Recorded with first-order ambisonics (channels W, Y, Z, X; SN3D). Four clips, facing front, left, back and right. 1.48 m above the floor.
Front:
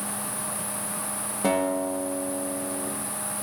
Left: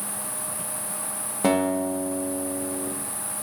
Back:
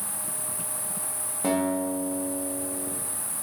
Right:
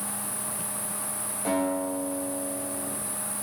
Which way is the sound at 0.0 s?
160° left.